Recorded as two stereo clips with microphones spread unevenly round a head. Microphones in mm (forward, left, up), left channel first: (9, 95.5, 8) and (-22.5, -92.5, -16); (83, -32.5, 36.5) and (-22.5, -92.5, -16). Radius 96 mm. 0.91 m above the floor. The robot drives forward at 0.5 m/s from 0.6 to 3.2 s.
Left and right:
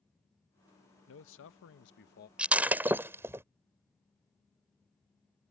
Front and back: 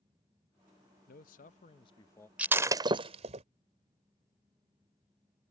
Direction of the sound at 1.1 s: 65° left.